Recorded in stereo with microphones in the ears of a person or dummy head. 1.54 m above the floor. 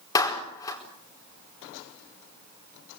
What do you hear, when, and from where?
0.1 s a clap: 25° left (ahead or behind), 4 m